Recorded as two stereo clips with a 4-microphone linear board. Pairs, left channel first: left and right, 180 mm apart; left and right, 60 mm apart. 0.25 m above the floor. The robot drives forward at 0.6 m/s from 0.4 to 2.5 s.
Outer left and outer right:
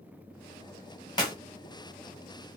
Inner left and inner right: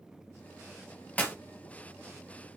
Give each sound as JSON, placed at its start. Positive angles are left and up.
{"t": 1.2, "sound": "a clap", "side_deg": 25, "distance_m": 1.3}